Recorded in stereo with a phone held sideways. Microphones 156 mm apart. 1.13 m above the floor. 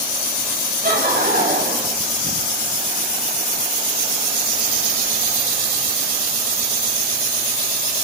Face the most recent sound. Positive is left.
turn(degrees=-75)  # may be behind; listen again after turning